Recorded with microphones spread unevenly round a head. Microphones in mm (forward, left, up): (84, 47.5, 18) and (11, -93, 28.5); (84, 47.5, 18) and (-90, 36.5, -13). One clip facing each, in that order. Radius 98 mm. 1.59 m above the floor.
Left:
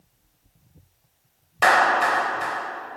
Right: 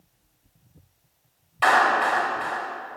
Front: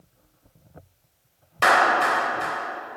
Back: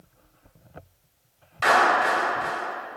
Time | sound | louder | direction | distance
1.6 | a clap | left 1 dB, front 1 dB | 20° left | 5 m